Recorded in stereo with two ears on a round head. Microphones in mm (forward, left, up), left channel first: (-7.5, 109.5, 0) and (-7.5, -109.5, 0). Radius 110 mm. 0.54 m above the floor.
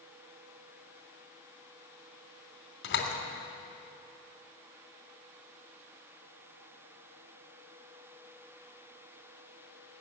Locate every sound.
2.8 s a door slam: 50° left (ahead or behind), 3 m